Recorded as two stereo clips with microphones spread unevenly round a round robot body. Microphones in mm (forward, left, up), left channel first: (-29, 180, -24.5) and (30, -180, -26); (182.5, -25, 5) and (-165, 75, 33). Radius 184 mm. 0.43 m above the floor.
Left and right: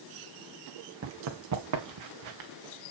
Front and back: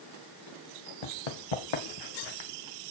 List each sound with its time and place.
1.0 s running footsteps: 30° right, 2 m; by 2.5 s 50° right, 2 m